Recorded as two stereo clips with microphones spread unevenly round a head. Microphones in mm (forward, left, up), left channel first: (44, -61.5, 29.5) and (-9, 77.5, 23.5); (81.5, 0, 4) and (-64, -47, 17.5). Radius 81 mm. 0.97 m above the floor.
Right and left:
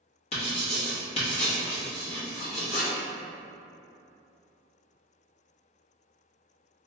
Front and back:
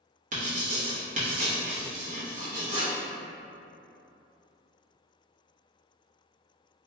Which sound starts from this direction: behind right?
Writing, at 0.3 s.